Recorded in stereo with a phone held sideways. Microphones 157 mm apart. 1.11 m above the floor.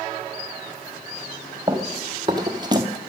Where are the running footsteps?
25° right (ahead or behind), 2.5 m.